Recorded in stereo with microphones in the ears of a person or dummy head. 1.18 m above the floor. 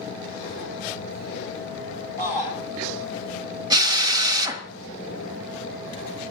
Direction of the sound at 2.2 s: 15° right (ahead or behind).